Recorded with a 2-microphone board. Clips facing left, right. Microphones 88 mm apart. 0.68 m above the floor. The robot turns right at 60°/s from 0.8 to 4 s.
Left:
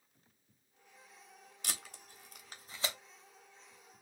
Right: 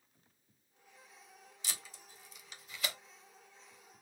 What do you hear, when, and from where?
1.6 s tape being pulled: 55° left (ahead or behind), 1.0 m; by 3.0 s 20° left (ahead or behind), 1.0 m